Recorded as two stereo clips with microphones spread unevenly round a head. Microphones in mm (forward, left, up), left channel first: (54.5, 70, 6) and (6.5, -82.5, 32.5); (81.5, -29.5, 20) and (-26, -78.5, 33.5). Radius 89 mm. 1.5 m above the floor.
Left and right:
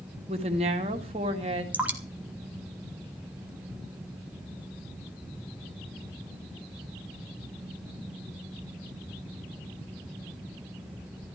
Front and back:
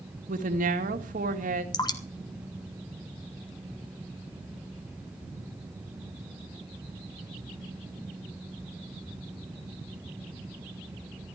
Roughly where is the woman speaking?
Behind.